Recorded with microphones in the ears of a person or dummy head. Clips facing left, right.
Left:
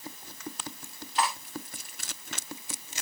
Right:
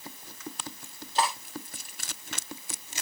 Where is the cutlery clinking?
35° right (ahead or behind), 3 m.